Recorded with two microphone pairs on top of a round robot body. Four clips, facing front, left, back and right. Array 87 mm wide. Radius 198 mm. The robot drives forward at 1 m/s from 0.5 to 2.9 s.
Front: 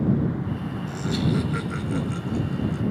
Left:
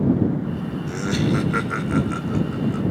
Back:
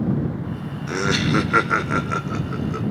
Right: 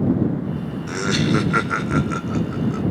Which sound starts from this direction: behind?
Laughter, at 0.9 s.